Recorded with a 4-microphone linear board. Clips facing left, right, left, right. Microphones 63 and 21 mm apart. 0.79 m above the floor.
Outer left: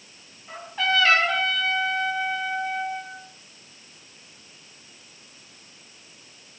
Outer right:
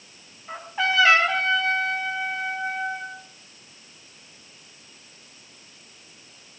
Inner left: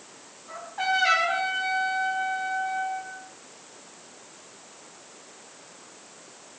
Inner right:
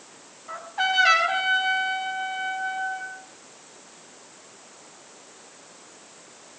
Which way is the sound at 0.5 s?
15° right (ahead or behind).